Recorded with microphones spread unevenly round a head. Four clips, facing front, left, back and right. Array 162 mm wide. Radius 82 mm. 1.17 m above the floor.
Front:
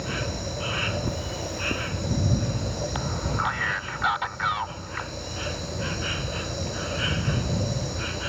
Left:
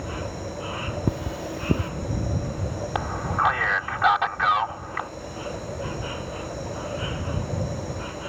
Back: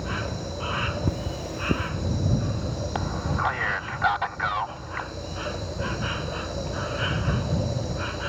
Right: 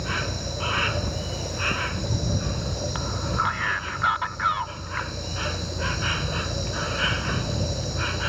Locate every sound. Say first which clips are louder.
0.0 s an insect: right 2 dB, even; 85° right
1.1 s cutlery clinking: left 3 dB, back 1 dB; 110° left
3.0 s a man speaking: left 4 dB, back 3 dB; 120° left